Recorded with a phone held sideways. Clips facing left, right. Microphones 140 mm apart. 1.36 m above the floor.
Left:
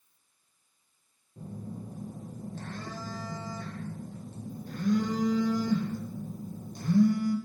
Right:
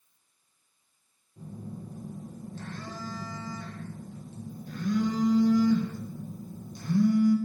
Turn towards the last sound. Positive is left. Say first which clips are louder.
# left 1 dB
turn(degrees=45)  # may be behind; listen again after turning